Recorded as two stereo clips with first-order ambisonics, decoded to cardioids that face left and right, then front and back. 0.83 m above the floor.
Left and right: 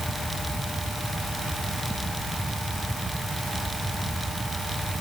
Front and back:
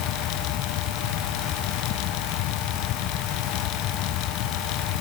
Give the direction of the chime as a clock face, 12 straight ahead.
No chime in this recording.